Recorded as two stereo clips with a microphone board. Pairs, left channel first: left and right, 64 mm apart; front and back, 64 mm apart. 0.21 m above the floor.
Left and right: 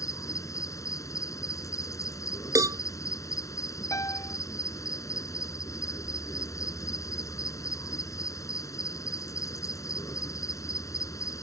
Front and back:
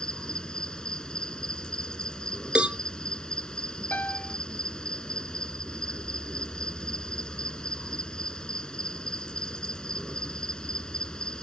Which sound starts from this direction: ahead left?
A piano, at 3.9 s.